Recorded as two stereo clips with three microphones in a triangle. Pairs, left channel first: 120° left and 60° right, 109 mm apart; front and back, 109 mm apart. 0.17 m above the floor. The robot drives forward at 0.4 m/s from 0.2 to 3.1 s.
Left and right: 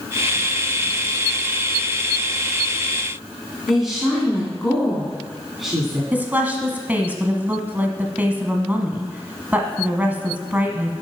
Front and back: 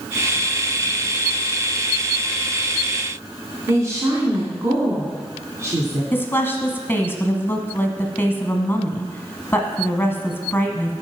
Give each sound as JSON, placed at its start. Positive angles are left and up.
{"t": 3.7, "sound": "a woman speaking", "azimuth_deg": -145, "distance_m": 1.8}
{"t": 6.1, "sound": "a woman speaking", "azimuth_deg": -15, "distance_m": 1.0}